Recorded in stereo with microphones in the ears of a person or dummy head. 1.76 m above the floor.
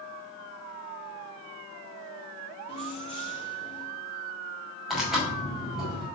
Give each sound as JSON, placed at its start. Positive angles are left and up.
{"t": 2.7, "sound": "keys jangling", "side_deg": 30, "distance_m": 0.9}
{"t": 4.9, "sound": "tearing paper", "side_deg": 0, "distance_m": 5.0}